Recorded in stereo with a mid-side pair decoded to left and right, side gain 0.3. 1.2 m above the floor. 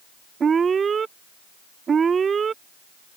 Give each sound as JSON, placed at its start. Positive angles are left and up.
{"t": 0.4, "sound": "an alarm", "azimuth_deg": -65}